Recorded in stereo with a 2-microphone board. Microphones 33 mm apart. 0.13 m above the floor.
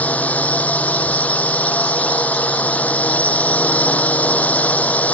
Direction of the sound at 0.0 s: 50° left (ahead or behind).